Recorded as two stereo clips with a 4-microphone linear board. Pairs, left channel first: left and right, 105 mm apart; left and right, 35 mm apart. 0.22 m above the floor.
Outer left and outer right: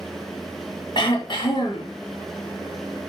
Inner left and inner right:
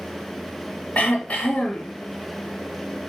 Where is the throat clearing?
50° left (ahead or behind), 2.0 m.